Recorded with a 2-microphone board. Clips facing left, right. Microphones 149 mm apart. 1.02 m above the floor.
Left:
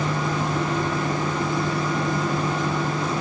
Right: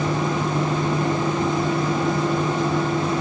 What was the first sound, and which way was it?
Only background noise.